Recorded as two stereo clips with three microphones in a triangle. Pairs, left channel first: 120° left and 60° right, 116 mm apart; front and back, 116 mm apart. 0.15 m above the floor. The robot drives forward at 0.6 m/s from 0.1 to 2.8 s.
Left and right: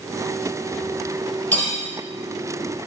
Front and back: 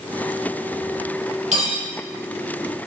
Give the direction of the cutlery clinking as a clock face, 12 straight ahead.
6 o'clock.